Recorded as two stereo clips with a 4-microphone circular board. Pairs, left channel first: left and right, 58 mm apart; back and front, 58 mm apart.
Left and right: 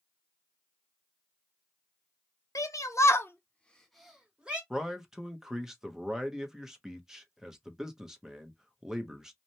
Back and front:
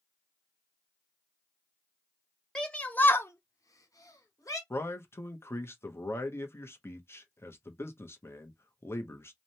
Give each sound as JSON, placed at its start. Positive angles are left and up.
{"t": 2.5, "sound": "a shout", "azimuth_deg": 105, "distance_m": 0.9}
{"t": 4.7, "sound": "a man speaking", "azimuth_deg": -165, "distance_m": 0.6}